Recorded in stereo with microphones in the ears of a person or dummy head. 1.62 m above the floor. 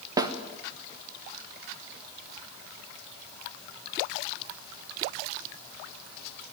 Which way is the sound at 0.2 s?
20° right (ahead or behind).